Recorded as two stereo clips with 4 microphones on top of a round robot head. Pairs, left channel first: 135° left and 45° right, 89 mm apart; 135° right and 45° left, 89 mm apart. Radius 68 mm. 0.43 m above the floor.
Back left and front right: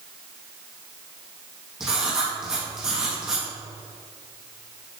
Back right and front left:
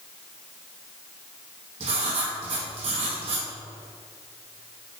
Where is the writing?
40° left, 3 m.